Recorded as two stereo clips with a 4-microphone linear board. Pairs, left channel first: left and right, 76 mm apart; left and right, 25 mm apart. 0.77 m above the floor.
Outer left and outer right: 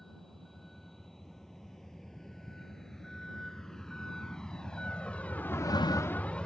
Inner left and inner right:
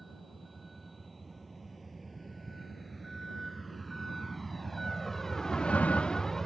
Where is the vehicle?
5° left (ahead or behind); by 6.5 s 15° left (ahead or behind).